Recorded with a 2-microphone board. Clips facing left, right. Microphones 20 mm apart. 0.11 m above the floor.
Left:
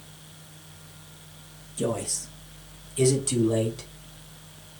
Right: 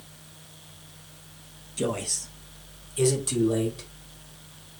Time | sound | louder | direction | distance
1.8 | a man speaking | even | 25° right (ahead or behind) | 3 m